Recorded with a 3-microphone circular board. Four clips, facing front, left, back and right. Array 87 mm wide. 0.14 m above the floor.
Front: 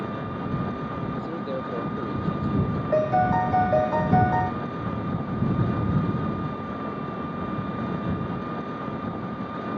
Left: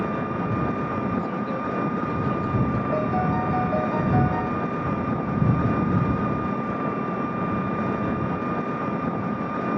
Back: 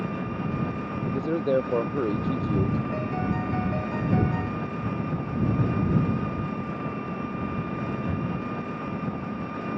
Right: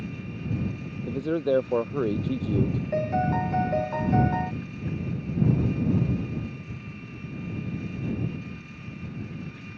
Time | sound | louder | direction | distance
0.0 | an engine running | left 11 dB, even | 80° left | ?
1.1 | a man speaking | right 1 dB, back 5 dB | 125° right | ?
2.9 | a piano | even, front 8 dB | straight ahead | ?